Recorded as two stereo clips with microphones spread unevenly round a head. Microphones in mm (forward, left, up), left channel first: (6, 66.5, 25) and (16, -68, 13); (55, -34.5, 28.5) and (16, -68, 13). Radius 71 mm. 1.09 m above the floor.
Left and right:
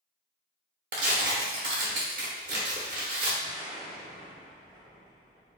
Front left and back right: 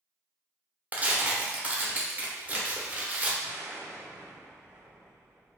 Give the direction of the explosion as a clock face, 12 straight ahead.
4 o'clock.